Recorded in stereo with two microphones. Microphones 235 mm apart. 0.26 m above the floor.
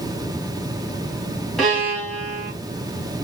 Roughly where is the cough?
I don't hear a cough.